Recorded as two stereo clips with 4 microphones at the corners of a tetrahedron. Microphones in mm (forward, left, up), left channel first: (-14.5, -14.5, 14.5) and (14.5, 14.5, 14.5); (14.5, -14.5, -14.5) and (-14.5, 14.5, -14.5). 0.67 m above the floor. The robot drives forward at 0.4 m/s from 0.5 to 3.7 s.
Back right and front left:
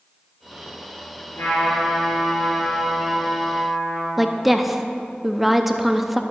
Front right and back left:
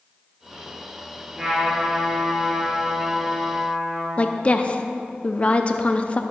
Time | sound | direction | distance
1.4 | a trumpet | 150° right | 4 m
4.2 | a woman speaking | 40° right | 0.6 m